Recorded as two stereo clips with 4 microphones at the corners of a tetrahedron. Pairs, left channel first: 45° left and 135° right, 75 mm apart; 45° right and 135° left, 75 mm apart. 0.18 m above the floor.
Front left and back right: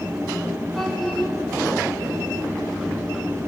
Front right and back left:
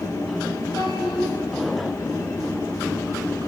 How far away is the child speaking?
About 1.8 m.